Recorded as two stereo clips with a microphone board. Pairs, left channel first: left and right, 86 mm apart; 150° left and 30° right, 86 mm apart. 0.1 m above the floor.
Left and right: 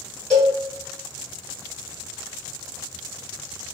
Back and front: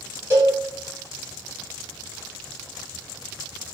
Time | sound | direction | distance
0.3 | a cowbell | 15° left | 1.7 m